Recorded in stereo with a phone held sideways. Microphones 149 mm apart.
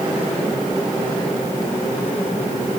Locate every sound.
Only background noise.